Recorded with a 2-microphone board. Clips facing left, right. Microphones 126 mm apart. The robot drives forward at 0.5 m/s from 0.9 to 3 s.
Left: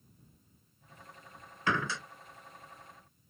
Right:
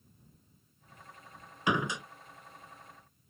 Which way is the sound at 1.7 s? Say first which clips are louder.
Right 2 dB; 15° right (ahead or behind).